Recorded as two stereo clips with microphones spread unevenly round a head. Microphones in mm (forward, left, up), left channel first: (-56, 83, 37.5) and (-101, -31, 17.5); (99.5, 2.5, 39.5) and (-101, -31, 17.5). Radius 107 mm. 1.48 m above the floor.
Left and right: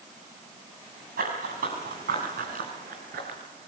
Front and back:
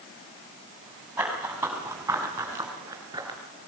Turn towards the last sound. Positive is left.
turn(degrees=-95)